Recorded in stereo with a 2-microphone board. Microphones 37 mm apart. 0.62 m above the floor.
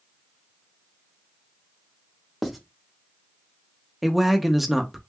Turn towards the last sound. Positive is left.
turn(degrees=-5)  # may be behind; listen again after turning